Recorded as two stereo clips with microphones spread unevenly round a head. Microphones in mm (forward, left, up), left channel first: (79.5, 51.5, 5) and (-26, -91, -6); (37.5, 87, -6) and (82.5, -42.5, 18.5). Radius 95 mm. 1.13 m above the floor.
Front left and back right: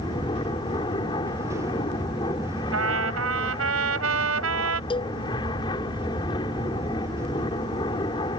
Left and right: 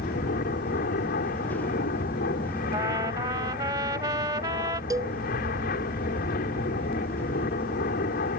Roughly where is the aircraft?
Behind left.